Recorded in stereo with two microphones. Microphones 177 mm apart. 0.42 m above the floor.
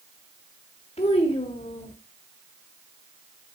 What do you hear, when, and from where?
1.0 s a child speaking: 35° left (ahead or behind), 1.1 m